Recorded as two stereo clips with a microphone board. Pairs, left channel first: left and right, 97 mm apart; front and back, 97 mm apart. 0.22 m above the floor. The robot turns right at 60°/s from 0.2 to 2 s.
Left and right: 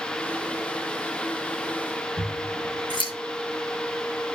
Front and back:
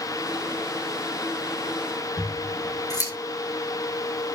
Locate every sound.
2.2 s scissors: 50° left, 6 m